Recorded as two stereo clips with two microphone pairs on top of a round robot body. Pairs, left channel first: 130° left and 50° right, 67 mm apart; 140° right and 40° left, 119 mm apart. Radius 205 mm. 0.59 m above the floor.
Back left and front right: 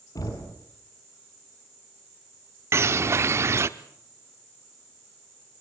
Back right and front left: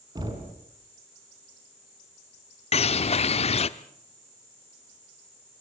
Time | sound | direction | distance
0.1 | knocking | 100° left | 5 m
2.7 | a bird | 100° right | 0.6 m